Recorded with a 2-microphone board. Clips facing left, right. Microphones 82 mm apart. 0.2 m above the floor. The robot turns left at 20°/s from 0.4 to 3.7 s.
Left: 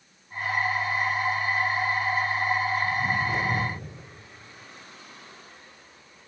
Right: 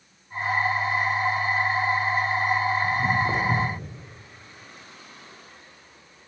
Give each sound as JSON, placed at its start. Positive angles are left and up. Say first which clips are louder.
{"t": 2.8, "sound": "footsteps", "louder": "right 3 dB", "side_deg": -55, "distance_m": 5.0}